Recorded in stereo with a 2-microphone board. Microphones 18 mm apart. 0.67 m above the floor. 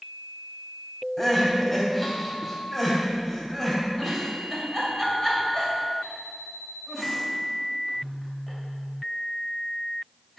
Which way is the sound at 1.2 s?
Centre (ahead or behind).